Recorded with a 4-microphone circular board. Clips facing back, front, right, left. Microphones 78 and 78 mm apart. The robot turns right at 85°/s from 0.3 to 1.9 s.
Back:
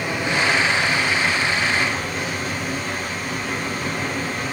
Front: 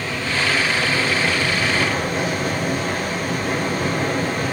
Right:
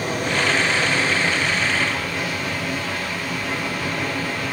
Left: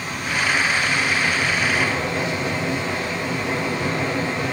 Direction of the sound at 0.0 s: 110° right.